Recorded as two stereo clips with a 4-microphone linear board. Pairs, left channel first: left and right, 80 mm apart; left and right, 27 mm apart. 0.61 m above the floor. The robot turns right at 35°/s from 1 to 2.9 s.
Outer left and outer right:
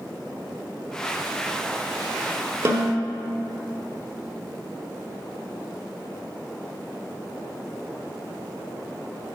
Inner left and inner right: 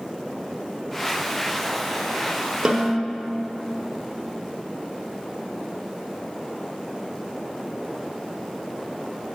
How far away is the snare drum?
About 1.0 m.